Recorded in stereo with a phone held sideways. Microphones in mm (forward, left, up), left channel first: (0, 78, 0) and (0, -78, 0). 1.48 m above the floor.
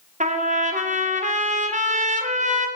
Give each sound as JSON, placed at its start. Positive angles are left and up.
{"t": 0.2, "sound": "a trumpet", "side_deg": -55, "distance_m": 1.0}